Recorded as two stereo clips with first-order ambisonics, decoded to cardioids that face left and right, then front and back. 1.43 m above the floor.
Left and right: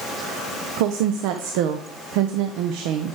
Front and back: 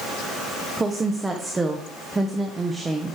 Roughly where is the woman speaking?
Right.